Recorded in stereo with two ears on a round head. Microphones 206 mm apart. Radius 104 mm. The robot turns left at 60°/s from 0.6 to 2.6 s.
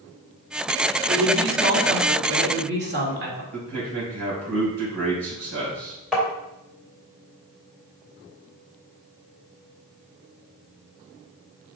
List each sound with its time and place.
1.1 s a woman speaking: 30° right, 2.0 m; by 3.4 s 125° right, 2.0 m
3.5 s a man speaking: 65° right (ahead or behind), 3 m
6.1 s tapping: centre (ahead or behind), 2.5 m